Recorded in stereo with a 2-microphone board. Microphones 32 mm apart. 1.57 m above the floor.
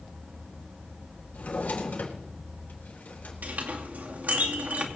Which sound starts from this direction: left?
A drawer, at 1.3 s.